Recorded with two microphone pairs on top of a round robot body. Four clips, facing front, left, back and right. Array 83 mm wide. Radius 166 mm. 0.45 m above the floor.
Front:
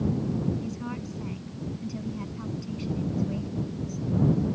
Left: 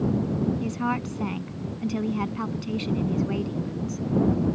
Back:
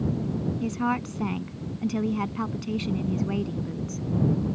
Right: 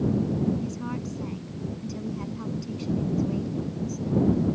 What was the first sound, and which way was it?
A woman speaking, 145° left.